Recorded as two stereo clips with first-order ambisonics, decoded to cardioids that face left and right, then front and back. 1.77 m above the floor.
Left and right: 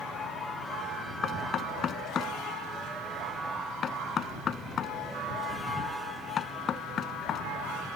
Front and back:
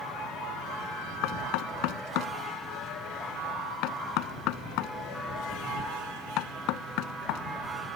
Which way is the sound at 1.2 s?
25° left.